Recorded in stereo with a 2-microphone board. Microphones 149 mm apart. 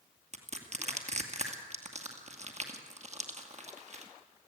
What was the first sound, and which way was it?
Crushing, 50° right (ahead or behind).